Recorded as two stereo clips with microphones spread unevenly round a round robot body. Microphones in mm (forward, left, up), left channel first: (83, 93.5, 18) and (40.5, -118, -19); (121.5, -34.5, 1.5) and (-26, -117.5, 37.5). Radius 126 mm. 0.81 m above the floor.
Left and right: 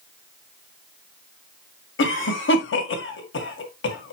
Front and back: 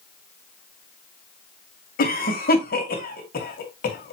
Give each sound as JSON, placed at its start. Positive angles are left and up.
{"t": 2.0, "sound": "a cough", "azimuth_deg": 45, "distance_m": 1.9}